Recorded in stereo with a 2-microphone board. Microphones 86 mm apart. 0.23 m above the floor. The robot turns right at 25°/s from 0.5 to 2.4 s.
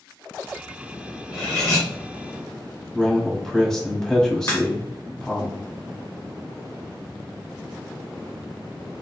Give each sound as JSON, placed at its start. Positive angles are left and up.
{"t": 1.3, "sound": "cutlery clinking", "side_deg": 0, "distance_m": 1.9}
{"t": 2.9, "sound": "a man speaking", "side_deg": 10, "distance_m": 1.5}
{"t": 4.5, "sound": "a crack", "side_deg": 30, "distance_m": 1.5}